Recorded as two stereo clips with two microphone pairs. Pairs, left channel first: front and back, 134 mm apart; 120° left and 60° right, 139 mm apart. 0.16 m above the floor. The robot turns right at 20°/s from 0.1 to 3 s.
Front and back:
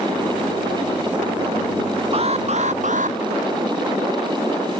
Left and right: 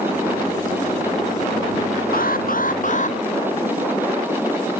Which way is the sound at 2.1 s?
135° left.